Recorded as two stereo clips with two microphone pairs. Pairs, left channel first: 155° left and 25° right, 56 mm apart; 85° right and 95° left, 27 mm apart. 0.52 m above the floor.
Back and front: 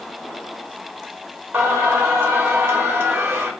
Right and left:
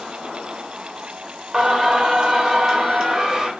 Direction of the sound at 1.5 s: 25° left.